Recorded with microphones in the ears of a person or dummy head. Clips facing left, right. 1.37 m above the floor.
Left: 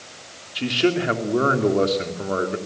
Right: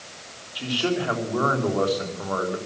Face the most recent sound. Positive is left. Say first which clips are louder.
# left 5 dB
turn(degrees=30)  # may be behind; listen again after turning